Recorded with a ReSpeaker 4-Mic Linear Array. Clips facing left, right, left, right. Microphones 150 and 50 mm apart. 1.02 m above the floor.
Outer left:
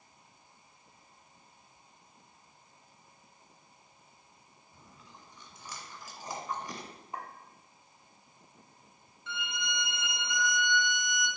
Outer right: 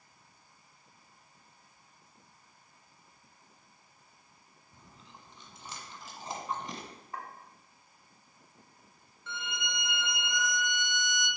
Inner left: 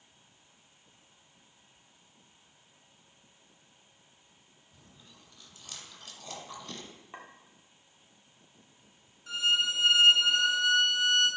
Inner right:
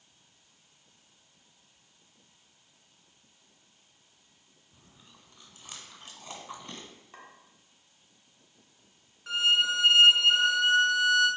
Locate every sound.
4.7 s chewing: 30° right (ahead or behind), 1.5 m
7.1 s a clink: 20° left (ahead or behind), 1.4 m
9.3 s a violin: 50° right (ahead or behind), 1.5 m